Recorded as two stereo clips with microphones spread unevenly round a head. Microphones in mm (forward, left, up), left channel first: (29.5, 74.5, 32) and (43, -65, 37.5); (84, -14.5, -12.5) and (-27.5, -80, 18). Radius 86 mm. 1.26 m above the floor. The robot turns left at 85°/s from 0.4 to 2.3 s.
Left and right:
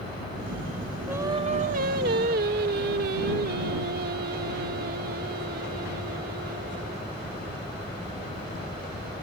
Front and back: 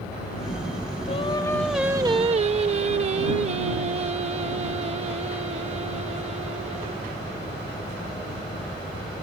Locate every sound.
1.1 s singing: 5° right; by 7.1 s 110° right